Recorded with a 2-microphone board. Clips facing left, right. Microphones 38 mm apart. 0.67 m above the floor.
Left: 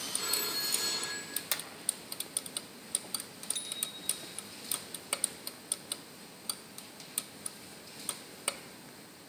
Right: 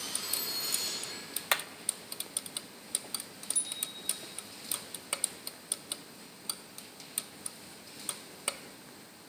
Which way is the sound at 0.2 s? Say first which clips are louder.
Left 5 dB; 55° left (ahead or behind).